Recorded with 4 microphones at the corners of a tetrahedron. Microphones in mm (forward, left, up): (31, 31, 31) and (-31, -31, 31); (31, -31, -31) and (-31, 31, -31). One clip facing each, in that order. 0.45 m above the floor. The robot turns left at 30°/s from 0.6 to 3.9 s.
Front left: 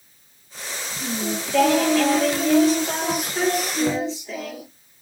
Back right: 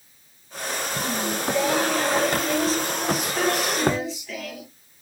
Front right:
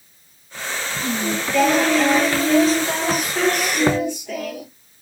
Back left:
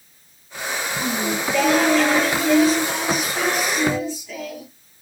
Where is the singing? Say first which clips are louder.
Front left 1 dB, front right 1 dB; 70° left, 5.5 m; by 4.7 s 15° right, 5.5 m.